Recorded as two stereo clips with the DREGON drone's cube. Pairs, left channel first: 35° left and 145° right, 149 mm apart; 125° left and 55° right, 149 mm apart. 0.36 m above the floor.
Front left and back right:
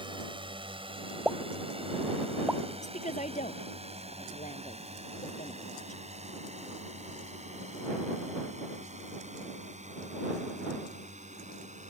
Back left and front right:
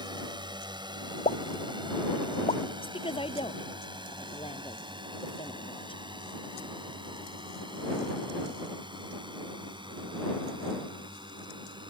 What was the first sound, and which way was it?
A drone, 105° right.